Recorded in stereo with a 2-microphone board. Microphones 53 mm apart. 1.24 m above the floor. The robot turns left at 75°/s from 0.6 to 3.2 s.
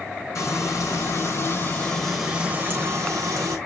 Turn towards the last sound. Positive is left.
turn(degrees=-80)